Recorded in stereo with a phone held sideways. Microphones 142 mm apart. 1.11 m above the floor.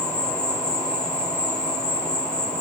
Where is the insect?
45° left (ahead or behind), 0.8 m.